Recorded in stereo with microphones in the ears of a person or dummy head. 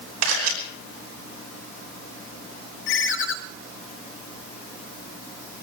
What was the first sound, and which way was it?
A camera shutter, 75° right (ahead or behind).